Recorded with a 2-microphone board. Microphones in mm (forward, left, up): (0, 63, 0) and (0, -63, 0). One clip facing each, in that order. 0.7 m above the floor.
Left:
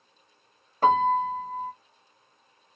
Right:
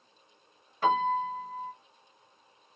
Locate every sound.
0.8 s a piano: 40° left (ahead or behind), 0.9 m